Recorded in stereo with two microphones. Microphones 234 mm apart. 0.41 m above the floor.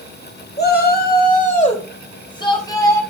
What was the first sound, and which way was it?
A shout, 45° left (ahead or behind).